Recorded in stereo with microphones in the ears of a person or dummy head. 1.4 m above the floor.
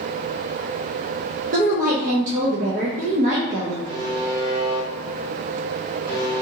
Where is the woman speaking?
40° right (ahead or behind), 0.5 m.